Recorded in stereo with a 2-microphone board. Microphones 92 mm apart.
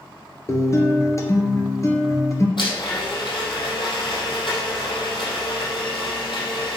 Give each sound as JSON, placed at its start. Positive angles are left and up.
{"t": 0.5, "sound": "a guitar", "side_deg": 35, "distance_m": 1.8}
{"t": 2.6, "sound": "a blender", "side_deg": 60, "distance_m": 4.5}